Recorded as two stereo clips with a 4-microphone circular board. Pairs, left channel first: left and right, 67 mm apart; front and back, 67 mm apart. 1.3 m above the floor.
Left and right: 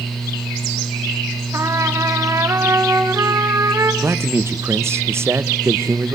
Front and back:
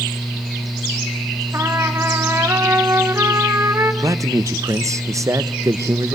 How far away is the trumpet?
About 2.5 m.